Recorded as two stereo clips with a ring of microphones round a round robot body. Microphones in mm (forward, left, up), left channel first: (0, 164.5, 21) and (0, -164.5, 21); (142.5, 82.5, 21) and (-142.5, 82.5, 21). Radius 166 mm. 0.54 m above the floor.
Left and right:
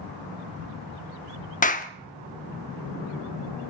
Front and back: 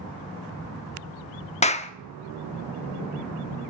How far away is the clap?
About 1.1 m.